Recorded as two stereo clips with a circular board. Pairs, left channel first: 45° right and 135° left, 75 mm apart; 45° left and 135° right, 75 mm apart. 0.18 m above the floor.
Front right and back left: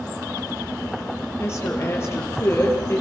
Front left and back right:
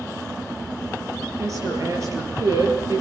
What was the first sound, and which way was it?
A woman speaking, 100° right.